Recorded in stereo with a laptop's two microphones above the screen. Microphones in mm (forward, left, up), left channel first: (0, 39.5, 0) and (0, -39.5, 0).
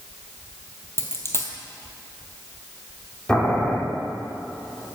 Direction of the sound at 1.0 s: 35° left (ahead or behind).